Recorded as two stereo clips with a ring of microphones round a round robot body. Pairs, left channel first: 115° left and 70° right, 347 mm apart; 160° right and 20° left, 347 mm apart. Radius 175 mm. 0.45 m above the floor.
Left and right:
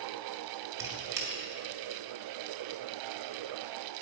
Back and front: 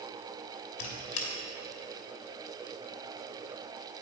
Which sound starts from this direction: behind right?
A squeak, at 0.8 s.